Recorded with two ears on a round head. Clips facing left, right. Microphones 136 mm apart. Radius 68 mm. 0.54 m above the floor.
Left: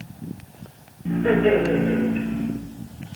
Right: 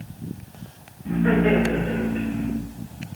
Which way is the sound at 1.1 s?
45° left (ahead or behind).